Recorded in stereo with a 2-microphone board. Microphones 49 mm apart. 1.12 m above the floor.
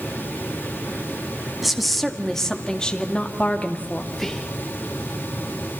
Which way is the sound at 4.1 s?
5° left (ahead or behind).